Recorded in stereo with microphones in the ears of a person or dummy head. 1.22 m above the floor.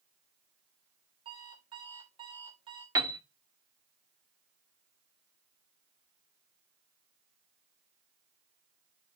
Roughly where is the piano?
Right.